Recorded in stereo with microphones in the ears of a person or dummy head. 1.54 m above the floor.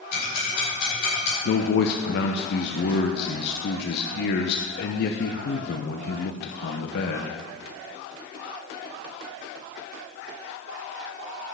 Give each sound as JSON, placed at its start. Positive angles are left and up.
{"t": 0.1, "sound": "ticking", "side_deg": 60, "distance_m": 5.5}
{"t": 1.4, "sound": "a man speaking", "side_deg": 60, "distance_m": 0.9}